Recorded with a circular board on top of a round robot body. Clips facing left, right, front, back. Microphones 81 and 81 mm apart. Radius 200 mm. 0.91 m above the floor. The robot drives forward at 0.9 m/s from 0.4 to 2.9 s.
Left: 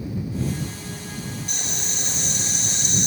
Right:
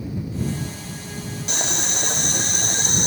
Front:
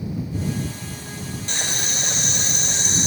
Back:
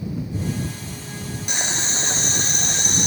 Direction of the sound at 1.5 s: 105° right.